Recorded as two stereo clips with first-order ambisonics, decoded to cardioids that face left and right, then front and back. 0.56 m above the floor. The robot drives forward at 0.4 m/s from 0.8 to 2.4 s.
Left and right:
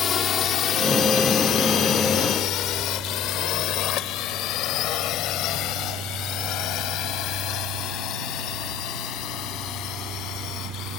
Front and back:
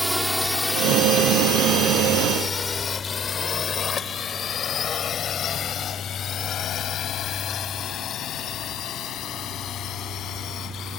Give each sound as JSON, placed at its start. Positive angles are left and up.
{"t": 0.0, "sound": "a drone", "azimuth_deg": 85}